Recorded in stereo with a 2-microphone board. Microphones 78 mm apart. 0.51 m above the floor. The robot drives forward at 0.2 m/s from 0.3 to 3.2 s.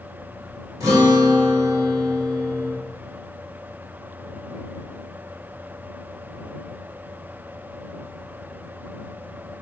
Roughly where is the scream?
I don't hear a scream.